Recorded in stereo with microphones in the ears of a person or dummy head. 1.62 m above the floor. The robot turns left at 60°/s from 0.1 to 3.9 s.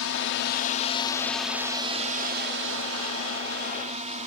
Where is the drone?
80° left; by 4.3 s 150° right.